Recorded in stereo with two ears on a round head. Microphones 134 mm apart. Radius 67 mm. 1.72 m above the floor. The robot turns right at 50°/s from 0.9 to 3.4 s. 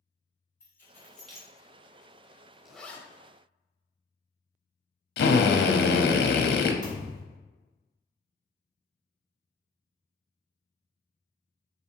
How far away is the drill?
About 0.5 m.